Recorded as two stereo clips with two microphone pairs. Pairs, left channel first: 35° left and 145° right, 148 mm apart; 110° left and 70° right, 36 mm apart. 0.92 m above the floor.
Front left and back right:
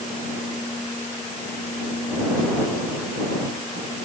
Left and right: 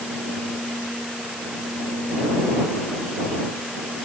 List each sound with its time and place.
Only background noise.